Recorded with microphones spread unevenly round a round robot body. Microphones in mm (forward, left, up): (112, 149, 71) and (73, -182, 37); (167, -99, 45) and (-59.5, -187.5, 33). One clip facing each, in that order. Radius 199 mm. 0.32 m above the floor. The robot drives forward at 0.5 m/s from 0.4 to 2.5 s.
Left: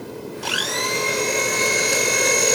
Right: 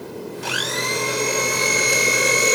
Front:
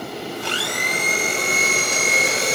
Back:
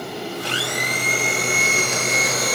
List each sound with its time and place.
0.4 s a blender: 10° right, 2.0 m; by 2.6 s 25° right, 1.2 m